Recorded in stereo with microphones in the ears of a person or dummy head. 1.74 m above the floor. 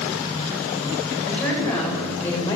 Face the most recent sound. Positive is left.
turn(degrees=15)  # may be behind; listen again after turning